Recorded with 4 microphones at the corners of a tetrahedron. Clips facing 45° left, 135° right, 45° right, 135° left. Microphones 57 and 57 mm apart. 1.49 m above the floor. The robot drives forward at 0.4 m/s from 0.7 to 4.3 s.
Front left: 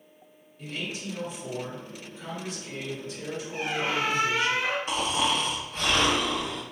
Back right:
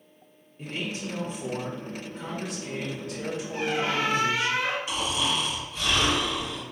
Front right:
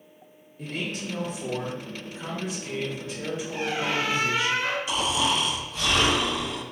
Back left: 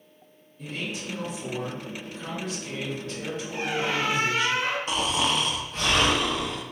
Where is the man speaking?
75° right, 1.1 m; by 4.5 s 140° right, 1.6 m.